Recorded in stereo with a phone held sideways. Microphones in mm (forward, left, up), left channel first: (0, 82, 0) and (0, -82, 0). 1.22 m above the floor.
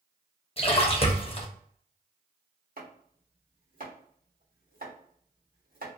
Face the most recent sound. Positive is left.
turn(degrees=-60)  # may be behind; listen again after turning